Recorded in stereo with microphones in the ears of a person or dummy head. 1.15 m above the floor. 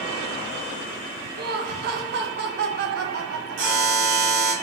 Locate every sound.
1.4 s laughter: 45° right (ahead or behind), 1.3 m
3.6 s a buzzer: 50° right (ahead or behind), 3.5 m